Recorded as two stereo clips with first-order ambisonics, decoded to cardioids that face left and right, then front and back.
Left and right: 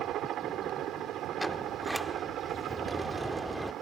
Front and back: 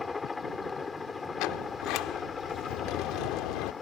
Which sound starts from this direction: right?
A helicopter, at 0.0 s.